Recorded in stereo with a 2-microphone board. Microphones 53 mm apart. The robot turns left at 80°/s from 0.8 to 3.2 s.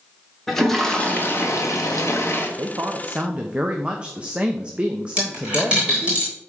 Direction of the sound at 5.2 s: 15° right (ahead or behind).